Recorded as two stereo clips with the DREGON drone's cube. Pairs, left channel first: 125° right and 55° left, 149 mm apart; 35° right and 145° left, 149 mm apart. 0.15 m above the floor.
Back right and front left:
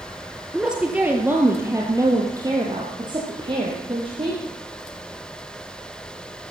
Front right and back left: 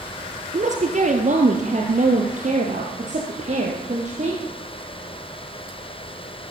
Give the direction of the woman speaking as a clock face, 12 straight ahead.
7 o'clock.